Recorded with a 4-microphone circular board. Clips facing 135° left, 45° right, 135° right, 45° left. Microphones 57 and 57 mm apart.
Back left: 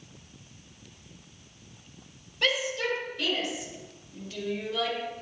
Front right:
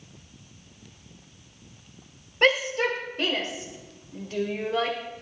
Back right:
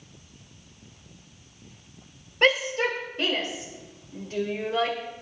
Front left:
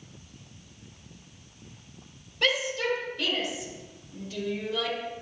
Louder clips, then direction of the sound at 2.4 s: Front right 6 dB, back right 5 dB; 90° right.